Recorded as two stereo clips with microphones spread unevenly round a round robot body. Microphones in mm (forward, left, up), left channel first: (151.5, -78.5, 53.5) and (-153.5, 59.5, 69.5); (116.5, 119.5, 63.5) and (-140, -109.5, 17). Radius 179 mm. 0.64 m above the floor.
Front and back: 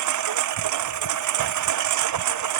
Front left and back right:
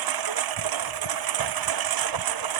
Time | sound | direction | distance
0.0 | a lawn mower | 165° right | ?